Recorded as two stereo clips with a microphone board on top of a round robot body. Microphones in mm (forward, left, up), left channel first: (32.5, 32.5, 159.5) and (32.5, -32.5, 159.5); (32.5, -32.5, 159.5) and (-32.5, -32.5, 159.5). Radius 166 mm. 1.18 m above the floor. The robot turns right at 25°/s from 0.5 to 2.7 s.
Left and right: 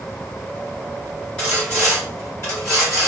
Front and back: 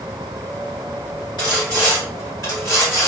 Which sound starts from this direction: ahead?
Sawing, at 1.4 s.